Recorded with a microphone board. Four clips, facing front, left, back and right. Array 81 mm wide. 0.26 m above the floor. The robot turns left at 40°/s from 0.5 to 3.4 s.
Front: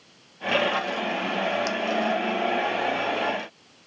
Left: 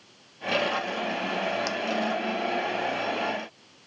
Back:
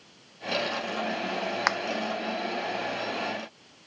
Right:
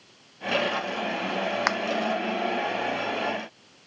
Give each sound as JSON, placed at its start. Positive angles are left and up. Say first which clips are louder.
{"t": 1.7, "sound": "a finger snap", "louder": "right 5 dB, back 1 dB", "azimuth_deg": -130}